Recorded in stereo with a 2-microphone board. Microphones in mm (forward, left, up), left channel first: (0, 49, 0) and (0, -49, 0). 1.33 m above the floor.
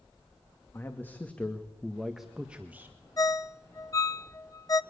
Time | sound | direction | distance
0.7 | a man speaking | 25° left (ahead or behind) | 2 m
3.2 | a ringtone | 35° left (ahead or behind) | 0.7 m